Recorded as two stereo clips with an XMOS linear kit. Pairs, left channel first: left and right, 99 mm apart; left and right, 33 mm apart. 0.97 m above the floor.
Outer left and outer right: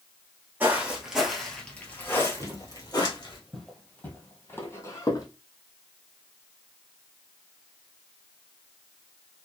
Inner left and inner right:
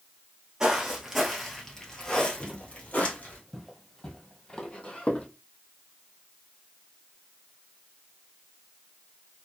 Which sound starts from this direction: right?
Footsteps, at 2.4 s.